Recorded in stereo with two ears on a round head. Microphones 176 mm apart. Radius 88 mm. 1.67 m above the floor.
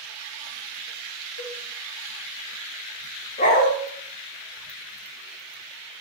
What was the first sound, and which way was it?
A cowbell, 70° left (ahead or behind).